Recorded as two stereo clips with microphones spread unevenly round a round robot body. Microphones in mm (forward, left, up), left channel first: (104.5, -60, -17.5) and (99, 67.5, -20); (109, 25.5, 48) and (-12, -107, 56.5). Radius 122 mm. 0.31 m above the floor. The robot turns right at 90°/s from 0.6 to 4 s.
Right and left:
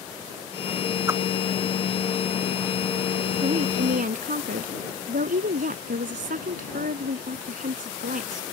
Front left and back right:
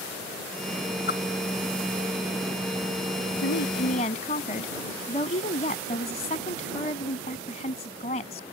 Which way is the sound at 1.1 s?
20° left.